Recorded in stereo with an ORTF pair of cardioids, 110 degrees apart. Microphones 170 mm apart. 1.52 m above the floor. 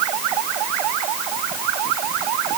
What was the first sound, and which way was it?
Only background noise.